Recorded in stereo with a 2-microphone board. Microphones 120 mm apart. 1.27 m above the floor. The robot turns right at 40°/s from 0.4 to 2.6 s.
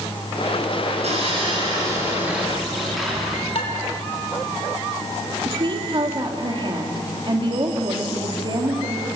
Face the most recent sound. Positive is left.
turn(degrees=-45)  # may be behind; listen again after turning